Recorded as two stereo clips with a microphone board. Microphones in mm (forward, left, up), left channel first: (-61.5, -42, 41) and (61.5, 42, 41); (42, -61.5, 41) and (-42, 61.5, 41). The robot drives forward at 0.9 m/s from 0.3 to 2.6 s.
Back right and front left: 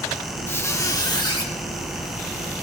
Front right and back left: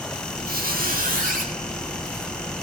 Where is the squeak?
140° left, 1.2 m; by 1.5 s 155° left, 2 m.